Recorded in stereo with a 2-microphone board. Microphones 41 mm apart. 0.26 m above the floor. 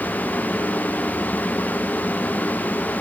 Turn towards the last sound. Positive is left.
No sound to turn to.